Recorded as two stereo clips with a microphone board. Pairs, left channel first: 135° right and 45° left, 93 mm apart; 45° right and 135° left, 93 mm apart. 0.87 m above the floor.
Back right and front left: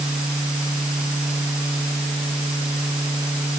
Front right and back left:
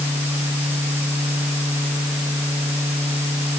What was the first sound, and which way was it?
Only background noise.